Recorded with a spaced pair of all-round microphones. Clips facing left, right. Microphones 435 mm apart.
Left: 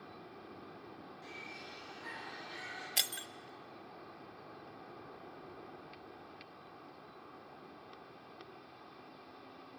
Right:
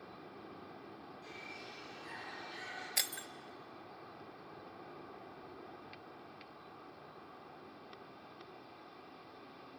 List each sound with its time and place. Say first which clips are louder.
1.2 s a bird: even; 80° left, 10 m
3.0 s breaking glass: left 1 dB; 50° left (ahead or behind), 0.6 m